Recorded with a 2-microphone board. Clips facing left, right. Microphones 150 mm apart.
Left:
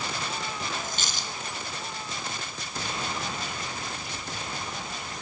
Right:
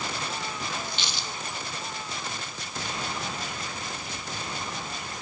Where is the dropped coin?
45° left (ahead or behind), 3.5 m.